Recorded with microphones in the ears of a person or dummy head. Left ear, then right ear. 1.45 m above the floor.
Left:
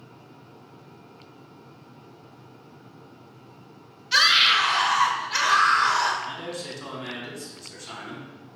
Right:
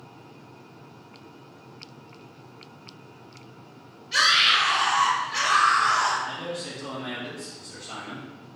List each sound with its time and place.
4.1 s a scream: 50° left (ahead or behind), 1.2 m
6.2 s a man speaking: 65° left (ahead or behind), 1.6 m